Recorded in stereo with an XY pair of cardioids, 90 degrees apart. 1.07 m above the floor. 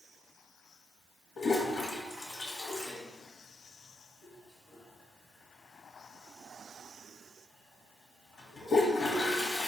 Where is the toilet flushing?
50° left, 1.2 m.